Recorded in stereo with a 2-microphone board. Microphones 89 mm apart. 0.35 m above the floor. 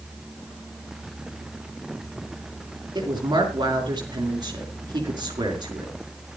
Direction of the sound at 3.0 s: 45° right (ahead or behind).